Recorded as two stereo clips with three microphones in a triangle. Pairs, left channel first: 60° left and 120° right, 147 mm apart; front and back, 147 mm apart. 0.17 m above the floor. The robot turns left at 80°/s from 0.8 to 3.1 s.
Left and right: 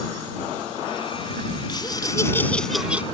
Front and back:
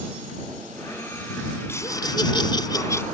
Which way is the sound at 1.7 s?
55° left.